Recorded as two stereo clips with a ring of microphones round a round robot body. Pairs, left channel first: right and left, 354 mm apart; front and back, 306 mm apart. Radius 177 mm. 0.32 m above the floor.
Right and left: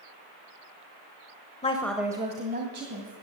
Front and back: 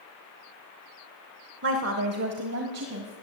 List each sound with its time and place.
1.6 s a woman speaking: 155° right, 1.0 m; by 3.1 s 145° left, 2 m